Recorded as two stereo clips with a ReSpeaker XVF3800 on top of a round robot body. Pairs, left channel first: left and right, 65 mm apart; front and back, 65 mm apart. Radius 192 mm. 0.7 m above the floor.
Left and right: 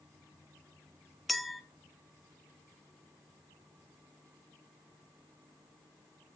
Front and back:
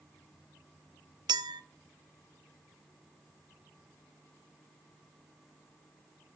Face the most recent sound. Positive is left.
turn(degrees=180)